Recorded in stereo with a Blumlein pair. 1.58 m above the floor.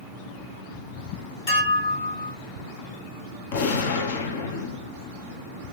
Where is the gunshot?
55° left, 0.7 m.